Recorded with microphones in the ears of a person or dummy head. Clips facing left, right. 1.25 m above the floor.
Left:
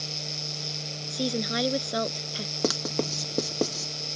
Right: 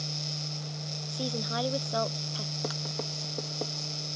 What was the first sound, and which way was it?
A woman speaking, 30° left (ahead or behind).